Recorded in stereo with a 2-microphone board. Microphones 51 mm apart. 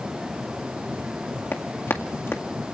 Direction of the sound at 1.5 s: 50° left (ahead or behind).